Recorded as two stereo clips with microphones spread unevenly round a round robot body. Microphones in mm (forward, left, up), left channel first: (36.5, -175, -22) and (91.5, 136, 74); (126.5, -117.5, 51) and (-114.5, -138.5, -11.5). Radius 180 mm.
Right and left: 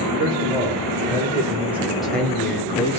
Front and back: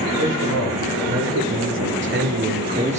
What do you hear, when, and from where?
0.2 s a man speaking: 160° left, 2.5 m; by 3.0 s 140° right, 0.9 m